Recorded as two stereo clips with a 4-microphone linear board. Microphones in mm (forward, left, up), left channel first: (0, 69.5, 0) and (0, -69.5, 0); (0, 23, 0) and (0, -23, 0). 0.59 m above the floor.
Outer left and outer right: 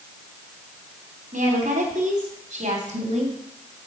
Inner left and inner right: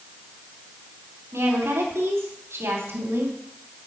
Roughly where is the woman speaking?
Right.